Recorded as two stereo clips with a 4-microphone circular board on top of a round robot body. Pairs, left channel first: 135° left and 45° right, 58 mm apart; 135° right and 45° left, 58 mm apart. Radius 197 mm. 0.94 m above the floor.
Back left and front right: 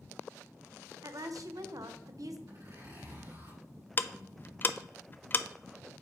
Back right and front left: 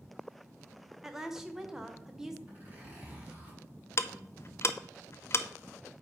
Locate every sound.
1.0 s a woman speaking: 35° right, 0.9 m
2.5 s a zipper: 15° right, 4.5 m
4.0 s ticking: 170° right, 0.5 m